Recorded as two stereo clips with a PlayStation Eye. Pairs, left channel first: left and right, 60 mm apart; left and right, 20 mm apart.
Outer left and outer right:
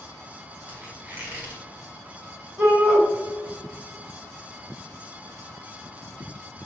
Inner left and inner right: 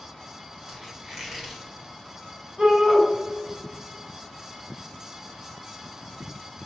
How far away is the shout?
About 1.1 m.